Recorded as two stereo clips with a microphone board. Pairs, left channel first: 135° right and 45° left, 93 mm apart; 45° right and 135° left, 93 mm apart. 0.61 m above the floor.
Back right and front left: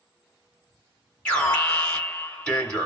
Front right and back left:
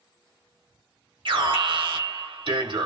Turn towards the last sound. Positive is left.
turn(degrees=145)